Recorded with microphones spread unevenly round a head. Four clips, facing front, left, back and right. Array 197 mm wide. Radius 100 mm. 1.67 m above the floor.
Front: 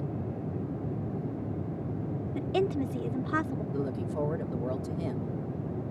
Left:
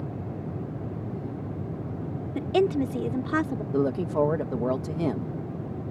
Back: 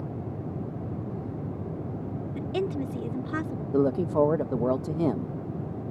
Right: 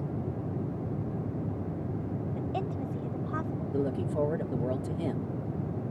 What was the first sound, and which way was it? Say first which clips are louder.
A woman speaking: left 15 dB, front 1 dB; 90° left.